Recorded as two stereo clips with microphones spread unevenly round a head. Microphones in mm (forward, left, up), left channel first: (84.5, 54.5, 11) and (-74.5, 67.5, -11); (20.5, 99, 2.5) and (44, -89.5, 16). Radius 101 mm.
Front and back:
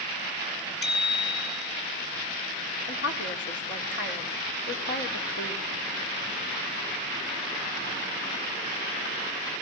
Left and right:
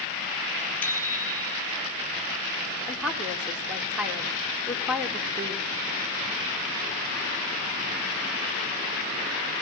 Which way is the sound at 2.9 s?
5° left.